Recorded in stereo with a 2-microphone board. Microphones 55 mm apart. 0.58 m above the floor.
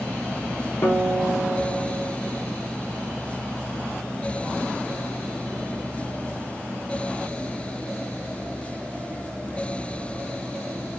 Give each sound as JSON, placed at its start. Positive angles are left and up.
{"t": 0.8, "sound": "a guitar", "side_deg": 65, "distance_m": 1.1}